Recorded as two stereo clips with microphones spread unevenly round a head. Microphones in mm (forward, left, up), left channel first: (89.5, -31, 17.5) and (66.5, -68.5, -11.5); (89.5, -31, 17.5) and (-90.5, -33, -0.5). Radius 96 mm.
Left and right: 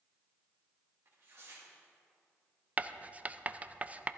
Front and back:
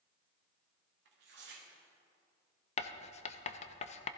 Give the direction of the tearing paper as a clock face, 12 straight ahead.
6 o'clock.